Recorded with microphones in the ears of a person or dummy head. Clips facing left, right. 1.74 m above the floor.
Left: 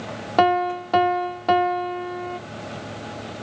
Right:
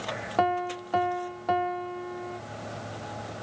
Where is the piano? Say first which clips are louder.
Left 8 dB; 65° left (ahead or behind), 0.6 m.